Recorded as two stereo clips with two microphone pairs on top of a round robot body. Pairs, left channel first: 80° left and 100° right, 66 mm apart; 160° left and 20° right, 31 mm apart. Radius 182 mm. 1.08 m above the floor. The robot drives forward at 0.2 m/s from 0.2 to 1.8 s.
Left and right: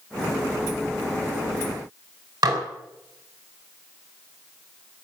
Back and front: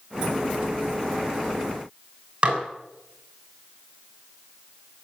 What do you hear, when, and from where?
2.4 s dishes clattering: 75° right, 3.5 m